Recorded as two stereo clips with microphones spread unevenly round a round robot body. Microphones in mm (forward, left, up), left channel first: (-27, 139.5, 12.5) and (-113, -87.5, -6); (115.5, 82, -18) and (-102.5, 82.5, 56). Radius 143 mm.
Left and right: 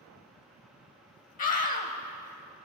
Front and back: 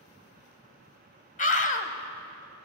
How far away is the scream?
About 2 m.